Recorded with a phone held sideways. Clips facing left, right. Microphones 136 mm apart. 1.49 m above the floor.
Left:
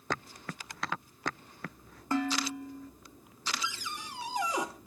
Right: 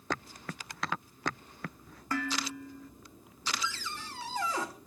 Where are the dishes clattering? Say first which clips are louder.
Left 4 dB; 25° left (ahead or behind), 1.7 m.